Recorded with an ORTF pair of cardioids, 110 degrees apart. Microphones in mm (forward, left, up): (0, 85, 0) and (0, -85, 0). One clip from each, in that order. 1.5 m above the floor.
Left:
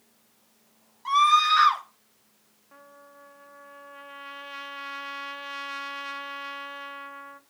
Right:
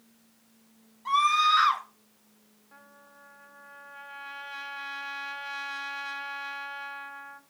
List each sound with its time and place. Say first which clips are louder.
1.1 s a scream: left 3 dB; 35° left, 4 m
2.7 s a trumpet: left 3 dB; 15° left, 1.4 m